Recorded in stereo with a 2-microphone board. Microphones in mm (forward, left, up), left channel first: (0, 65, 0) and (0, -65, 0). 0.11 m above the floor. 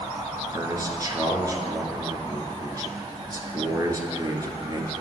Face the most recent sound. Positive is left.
turn(degrees=-30)  # may be behind; listen again after turning